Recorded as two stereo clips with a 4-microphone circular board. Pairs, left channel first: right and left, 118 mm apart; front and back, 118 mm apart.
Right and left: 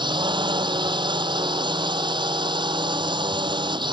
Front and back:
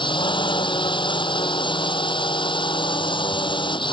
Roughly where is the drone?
Ahead left.